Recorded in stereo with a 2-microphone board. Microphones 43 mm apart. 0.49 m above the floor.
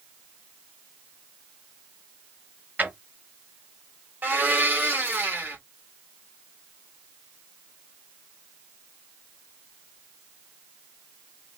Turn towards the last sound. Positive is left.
turn(degrees=-55)  # may be behind; listen again after turning